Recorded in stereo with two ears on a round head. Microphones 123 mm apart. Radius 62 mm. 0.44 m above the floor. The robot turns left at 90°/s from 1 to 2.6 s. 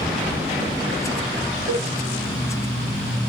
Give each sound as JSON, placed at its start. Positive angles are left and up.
{"t": 1.7, "sound": "a cowbell", "side_deg": -60, "distance_m": 4.5}